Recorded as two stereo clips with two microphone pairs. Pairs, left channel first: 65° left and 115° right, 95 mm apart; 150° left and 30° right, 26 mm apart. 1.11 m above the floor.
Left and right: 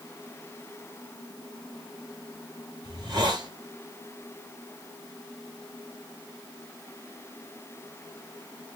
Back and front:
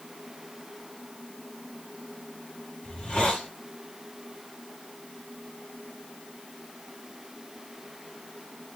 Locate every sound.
2.8 s a hiss: 160° right, 2.5 m